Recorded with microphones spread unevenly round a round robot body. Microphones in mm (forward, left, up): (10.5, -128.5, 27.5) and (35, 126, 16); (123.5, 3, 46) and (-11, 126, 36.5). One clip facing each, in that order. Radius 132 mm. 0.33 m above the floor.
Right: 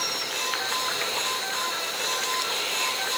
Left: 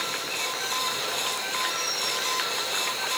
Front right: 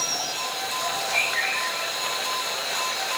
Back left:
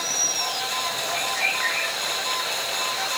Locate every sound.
Only background noise.